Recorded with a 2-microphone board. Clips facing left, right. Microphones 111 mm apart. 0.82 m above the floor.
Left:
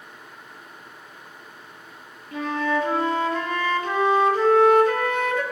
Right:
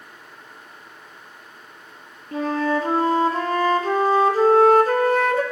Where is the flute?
35° right (ahead or behind), 0.7 m.